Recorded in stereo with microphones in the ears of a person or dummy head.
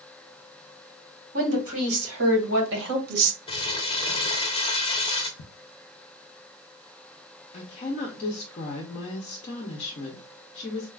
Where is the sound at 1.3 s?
80° right, 2.5 m; by 3.4 s 45° right (ahead or behind), 1.1 m.